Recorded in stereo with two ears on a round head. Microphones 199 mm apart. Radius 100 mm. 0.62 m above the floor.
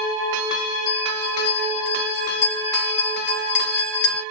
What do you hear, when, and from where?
0.9 s a bell: 55° left (ahead or behind), 0.9 m